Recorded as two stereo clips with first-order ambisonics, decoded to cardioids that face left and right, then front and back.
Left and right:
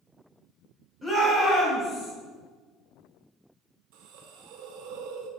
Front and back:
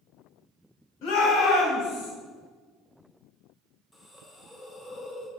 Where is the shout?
5° right, 3.5 m; by 2.1 s 5° left, 4.5 m.